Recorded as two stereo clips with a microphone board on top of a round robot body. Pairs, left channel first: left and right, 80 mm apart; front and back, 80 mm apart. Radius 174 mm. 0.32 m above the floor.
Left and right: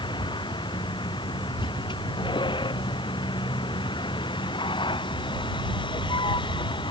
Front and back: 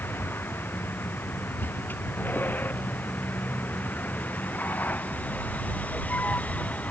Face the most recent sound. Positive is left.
turn(degrees=75)